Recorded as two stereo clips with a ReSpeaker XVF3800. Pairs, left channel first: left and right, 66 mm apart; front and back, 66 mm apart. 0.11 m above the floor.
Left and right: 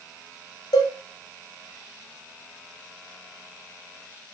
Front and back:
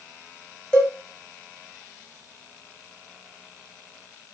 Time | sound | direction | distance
0.7 | a cowbell | 75° left | 1.9 m